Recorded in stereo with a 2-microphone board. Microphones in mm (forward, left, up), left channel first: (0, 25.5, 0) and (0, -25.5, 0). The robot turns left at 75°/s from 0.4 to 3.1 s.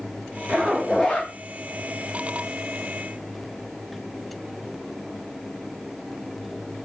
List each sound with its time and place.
0.5 s a zipper: 150° right, 1.7 m; by 1.3 s 150° left, 1.7 m